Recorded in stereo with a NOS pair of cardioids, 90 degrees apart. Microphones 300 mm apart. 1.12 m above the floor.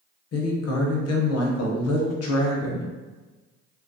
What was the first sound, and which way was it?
A woman speaking, 55° left.